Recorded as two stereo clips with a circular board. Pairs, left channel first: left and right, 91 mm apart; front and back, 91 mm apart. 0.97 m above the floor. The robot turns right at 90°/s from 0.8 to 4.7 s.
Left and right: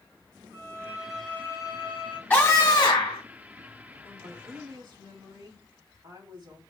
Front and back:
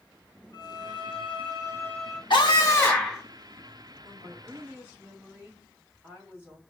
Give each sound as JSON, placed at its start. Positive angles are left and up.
{"t": 0.5, "sound": "a violin", "azimuth_deg": -30, "distance_m": 1.0}
{"t": 2.3, "sound": "a scream", "azimuth_deg": 20, "distance_m": 1.6}
{"t": 4.0, "sound": "a woman speaking", "azimuth_deg": -175, "distance_m": 2.5}